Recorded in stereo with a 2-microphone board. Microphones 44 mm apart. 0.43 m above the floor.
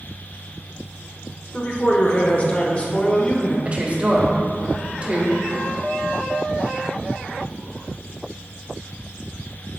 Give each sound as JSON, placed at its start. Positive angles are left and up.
{"t": 1.5, "sound": "a man speaking", "side_deg": 30, "distance_m": 1.1}
{"t": 3.6, "sound": "a woman speaking", "side_deg": -30, "distance_m": 1.2}